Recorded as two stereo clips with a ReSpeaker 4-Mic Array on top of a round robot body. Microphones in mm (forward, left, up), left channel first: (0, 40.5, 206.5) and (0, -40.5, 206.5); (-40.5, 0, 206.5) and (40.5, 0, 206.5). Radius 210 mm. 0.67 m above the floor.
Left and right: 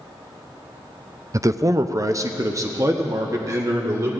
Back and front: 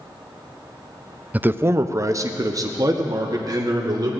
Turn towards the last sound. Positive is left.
turn(degrees=-40)